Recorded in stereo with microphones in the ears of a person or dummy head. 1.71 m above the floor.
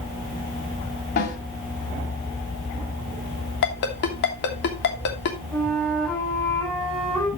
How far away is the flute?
About 5.5 m.